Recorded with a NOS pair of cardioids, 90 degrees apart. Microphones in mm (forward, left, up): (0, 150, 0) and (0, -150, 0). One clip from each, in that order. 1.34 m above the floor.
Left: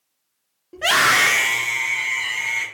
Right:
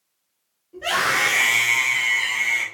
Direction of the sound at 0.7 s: 60° left.